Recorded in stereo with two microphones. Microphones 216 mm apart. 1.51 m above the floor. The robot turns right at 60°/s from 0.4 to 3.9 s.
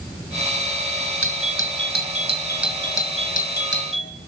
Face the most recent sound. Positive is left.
turn(degrees=70)